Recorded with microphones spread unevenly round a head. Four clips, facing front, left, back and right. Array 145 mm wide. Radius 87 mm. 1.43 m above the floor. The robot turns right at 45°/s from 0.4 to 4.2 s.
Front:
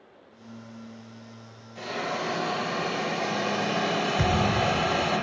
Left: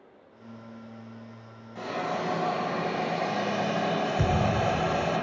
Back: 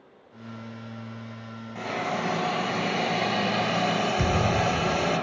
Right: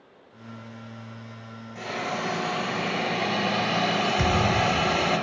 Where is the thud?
5° left, 1.2 m.